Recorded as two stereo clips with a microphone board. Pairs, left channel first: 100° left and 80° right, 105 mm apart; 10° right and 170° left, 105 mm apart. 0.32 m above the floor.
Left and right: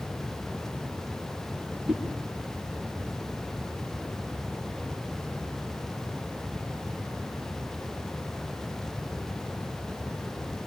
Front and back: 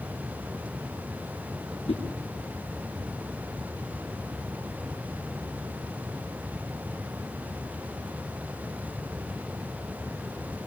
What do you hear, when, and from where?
1.9 s a whoosh: 5° left, 5.5 m